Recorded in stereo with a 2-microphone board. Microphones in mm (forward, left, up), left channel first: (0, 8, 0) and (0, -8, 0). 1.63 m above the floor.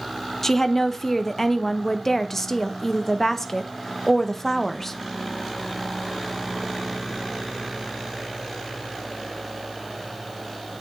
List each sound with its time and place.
0.4 s a woman speaking: 20° left (ahead or behind), 0.6 m